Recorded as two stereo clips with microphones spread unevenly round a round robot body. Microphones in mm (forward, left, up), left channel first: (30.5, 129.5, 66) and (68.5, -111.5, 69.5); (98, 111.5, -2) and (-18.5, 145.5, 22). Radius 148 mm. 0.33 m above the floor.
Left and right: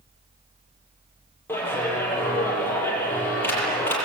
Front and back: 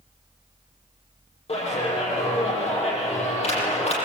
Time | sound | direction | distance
1.5 | a clap | 20° left | 8 m